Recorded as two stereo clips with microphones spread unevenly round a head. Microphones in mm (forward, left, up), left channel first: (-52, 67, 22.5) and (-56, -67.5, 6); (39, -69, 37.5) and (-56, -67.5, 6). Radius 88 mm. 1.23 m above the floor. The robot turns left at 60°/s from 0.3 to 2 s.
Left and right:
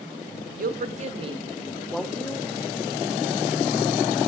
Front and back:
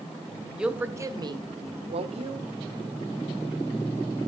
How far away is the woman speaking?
About 1.7 m.